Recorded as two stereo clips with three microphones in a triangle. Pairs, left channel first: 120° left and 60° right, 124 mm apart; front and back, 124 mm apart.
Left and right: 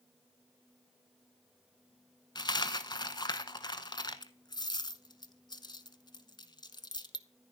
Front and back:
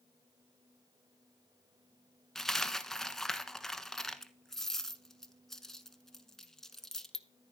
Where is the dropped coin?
85° left, 0.8 m.